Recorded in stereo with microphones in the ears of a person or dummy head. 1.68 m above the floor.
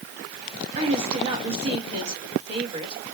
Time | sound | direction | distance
0.8 | a woman speaking | 35° right (ahead or behind) | 2.5 m